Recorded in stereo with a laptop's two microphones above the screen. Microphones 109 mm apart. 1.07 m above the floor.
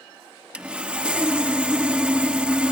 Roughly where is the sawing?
Centre.